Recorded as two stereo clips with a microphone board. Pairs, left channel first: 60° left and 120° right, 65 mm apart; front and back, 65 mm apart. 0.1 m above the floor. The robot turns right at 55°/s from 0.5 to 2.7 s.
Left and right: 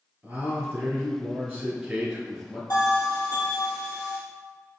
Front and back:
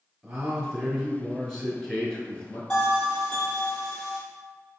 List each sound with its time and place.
0.2 s a man speaking: 140° right, 1.2 m; by 2.6 s 25° right, 1.2 m
2.7 s a bell: 75° left, 2.0 m